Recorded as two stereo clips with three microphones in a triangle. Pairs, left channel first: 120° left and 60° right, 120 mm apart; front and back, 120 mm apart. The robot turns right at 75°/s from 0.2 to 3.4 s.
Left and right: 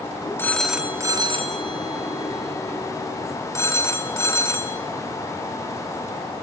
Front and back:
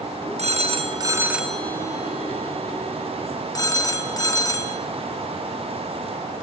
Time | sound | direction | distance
0.4 | a phone ringing | 170° right | 1.0 m